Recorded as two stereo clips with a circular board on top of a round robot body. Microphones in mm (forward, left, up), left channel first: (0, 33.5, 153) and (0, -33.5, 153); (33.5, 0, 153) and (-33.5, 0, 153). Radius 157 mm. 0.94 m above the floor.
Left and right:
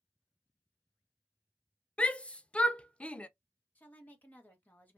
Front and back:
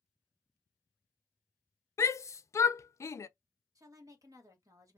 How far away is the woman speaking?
About 1.3 m.